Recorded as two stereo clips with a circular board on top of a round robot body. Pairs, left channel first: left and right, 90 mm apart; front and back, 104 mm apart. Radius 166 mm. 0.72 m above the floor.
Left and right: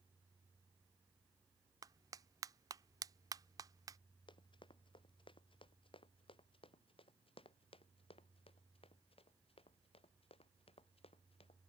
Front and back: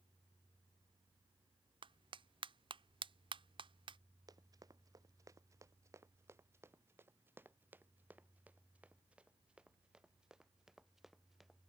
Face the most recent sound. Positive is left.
turn(degrees=90)